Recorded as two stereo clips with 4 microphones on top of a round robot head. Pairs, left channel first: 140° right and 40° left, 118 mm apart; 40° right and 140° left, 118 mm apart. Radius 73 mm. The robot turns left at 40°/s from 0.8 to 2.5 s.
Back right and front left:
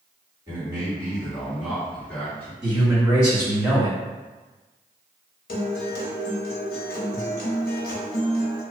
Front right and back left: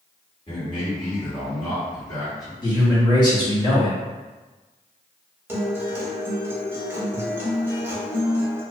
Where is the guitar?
145° right, 0.5 m.